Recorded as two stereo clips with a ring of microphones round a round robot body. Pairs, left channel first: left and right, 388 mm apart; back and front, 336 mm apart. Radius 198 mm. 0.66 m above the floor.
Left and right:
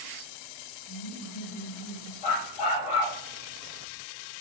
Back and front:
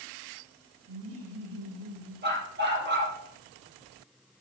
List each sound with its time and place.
0.9 s laughter: 45° left, 7.5 m; by 2.1 s 35° left, 7.5 m
2.2 s a dog barking: 60° left, 5.5 m